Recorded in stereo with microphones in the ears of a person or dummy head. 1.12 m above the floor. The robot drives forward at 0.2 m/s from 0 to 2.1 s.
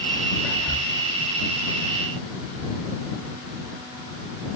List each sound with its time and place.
0.4 s whispering: 10° left (ahead or behind), 0.7 m